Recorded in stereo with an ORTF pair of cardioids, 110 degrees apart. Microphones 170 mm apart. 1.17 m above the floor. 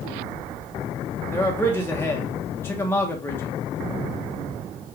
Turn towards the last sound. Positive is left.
turn(degrees=15)